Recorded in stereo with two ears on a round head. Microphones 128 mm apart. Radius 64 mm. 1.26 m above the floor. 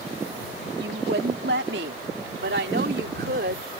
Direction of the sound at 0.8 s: 75° right (ahead or behind).